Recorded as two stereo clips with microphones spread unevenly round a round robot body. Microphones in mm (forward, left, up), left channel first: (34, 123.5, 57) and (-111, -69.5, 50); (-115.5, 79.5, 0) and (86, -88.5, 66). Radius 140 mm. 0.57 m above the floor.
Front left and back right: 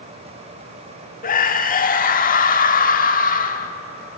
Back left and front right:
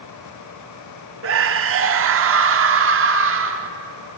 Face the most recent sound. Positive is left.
turn(degrees=5)